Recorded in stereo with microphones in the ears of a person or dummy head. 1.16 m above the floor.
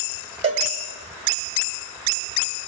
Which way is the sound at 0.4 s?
40° right (ahead or behind).